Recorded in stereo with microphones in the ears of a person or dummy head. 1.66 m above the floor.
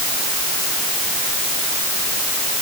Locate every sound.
Only background noise.